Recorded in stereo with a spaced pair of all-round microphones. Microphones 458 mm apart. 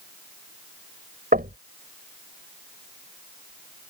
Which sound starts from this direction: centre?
Knocking, at 1.3 s.